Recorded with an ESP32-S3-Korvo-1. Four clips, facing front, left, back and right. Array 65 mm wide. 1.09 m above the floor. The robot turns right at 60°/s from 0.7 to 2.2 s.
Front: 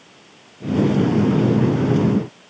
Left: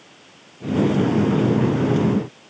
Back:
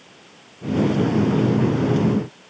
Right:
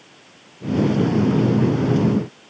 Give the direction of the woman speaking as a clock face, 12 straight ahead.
No woman speaking in this recording.